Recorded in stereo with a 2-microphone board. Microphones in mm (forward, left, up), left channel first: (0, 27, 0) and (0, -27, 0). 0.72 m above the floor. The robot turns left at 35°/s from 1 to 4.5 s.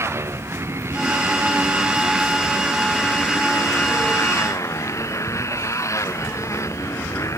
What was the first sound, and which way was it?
A motorcycle, 125° right.